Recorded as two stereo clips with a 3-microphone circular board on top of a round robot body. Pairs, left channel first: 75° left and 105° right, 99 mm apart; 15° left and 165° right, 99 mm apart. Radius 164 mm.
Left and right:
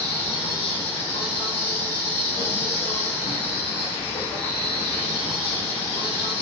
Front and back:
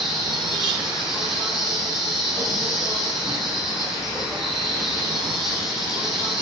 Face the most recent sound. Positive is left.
turn(degrees=110)